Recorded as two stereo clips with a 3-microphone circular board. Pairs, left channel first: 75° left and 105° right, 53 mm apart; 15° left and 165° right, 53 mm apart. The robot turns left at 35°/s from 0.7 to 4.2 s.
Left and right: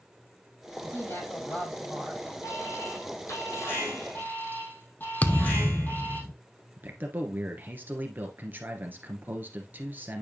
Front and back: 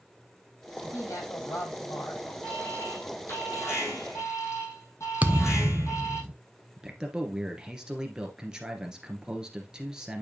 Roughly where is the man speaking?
Right.